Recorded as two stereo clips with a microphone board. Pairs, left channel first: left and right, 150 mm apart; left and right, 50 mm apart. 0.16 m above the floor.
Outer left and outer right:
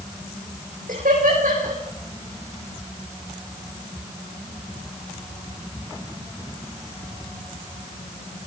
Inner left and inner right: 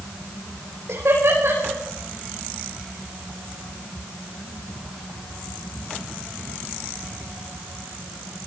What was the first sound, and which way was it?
Laughter, 75° right (ahead or behind).